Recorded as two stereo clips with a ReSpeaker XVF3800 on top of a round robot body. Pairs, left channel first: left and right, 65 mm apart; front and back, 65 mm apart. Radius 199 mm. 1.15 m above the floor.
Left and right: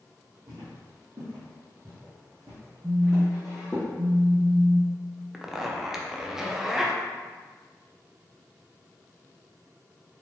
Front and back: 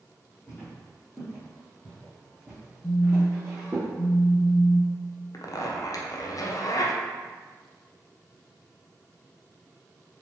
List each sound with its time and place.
0.5 s footsteps: 60° right, 1.8 m; by 3.8 s 165° left, 1.3 m
2.8 s a phone buzzing: 40° right, 0.6 m
5.3 s a zipper: 5° right, 0.8 m